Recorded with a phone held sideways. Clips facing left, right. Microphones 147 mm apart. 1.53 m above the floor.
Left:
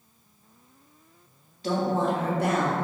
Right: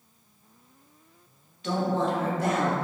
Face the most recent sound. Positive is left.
turn(degrees=65)  # may be behind; listen again after turning